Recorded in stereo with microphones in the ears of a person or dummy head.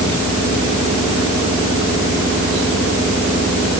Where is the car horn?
No car horn in this recording.